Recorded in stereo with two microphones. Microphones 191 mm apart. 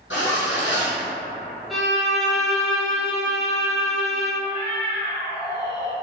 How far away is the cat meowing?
About 1.1 m.